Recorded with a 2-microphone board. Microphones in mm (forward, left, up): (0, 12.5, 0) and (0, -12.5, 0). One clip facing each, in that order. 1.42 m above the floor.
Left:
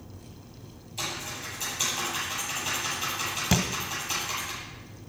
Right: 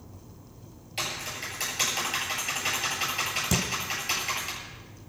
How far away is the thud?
About 1.6 m.